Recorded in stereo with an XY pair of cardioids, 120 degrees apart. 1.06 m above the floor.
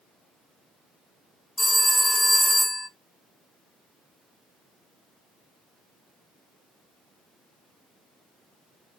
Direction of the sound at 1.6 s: 10° left.